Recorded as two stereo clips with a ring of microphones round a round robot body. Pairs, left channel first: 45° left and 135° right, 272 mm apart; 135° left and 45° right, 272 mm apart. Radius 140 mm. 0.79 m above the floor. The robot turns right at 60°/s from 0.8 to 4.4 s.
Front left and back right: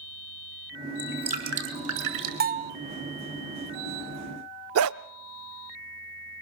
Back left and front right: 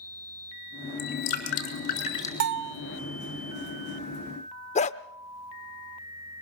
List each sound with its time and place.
1.0 s dripping: 140° left, 6 m; by 2.3 s 145° right, 6 m
2.4 s a bell: 80° right, 1.0 m; by 2.8 s 60° right, 1.0 m
4.8 s a dog barking: 165° right, 0.5 m